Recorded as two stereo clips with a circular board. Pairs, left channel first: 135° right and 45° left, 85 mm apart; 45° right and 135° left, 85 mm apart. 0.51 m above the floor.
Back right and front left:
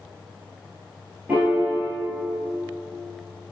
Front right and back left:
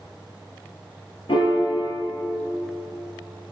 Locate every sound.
1.3 s a piano: 25° right, 2.5 m